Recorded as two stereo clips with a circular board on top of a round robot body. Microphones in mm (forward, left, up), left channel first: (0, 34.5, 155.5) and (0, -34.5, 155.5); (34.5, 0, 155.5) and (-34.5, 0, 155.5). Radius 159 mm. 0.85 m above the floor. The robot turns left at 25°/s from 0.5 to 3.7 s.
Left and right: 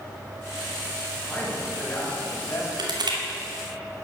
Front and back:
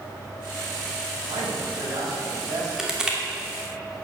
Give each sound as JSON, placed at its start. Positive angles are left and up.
{"t": 1.3, "sound": "a man speaking", "azimuth_deg": 175, "distance_m": 6.0}
{"t": 2.8, "sound": "crushing", "azimuth_deg": -95, "distance_m": 2.5}